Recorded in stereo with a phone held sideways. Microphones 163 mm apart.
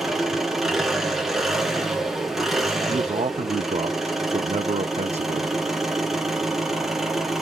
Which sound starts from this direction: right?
A man speaking, at 2.9 s.